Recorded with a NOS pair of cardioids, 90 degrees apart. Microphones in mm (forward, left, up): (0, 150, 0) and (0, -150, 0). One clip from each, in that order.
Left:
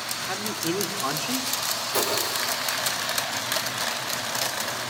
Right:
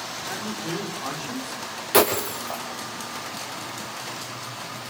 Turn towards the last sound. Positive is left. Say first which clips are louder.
# right 7 dB
turn(degrees=-65)